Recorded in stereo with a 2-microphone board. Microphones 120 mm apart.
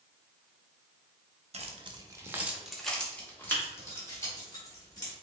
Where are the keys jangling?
60° right (ahead or behind), 0.6 m; by 5.1 s 30° left (ahead or behind), 1.9 m.